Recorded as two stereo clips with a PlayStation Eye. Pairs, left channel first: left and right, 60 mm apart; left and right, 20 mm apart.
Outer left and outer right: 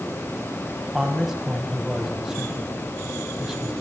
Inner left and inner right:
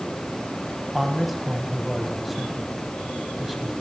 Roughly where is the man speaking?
Centre.